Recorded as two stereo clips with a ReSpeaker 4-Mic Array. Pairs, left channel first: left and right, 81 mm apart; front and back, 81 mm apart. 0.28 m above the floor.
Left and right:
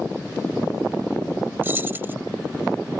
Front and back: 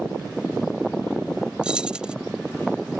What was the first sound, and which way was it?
Keys jangling, 115° right.